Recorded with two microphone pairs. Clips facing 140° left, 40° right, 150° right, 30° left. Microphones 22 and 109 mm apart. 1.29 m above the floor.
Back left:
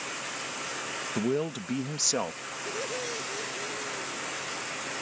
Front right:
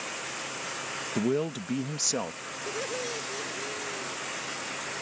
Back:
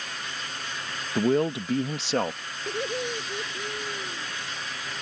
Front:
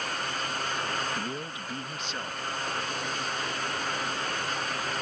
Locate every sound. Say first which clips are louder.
1.1 s a man speaking: front right 1 dB, back 12 dB; 130° right; by 2.4 s 145° right
2.7 s laughter: front right 1 dB, back 8 dB; 130° right